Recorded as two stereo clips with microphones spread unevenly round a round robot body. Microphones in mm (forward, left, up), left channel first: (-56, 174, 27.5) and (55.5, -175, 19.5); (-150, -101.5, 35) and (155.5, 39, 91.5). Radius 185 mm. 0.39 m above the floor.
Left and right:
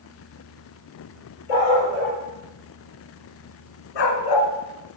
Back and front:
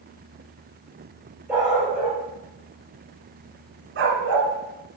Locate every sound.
1.5 s a dog barking: 115° left, 4 m; by 4.5 s 70° left, 1.6 m